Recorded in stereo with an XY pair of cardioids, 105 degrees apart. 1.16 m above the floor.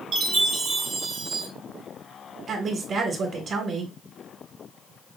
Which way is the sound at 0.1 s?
65° right.